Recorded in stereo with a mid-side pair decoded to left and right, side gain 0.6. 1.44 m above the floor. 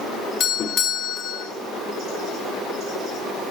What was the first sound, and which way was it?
A doorbell, 45° left.